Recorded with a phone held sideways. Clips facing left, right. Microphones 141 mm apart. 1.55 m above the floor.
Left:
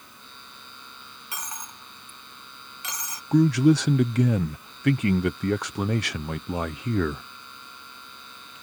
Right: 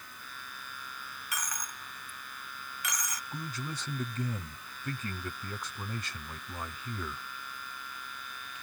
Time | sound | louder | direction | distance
0.0 | a machine running | right 1 dB | 25° left (ahead or behind) | ?
1.3 | a dropped coin | left 2 dB | 25° left (ahead or behind) | ?
3.3 | a man speaking | left 25 dB | 75° left (ahead or behind) | ?